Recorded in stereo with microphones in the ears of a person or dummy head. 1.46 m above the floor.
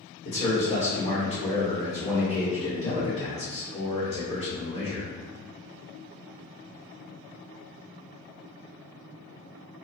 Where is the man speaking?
35° left (ahead or behind), 1.1 m.